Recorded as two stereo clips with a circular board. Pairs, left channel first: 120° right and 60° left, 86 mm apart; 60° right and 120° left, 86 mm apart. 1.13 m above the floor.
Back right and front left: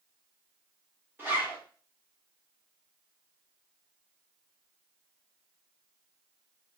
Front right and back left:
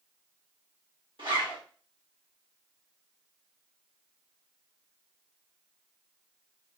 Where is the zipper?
125° left, 1.2 m.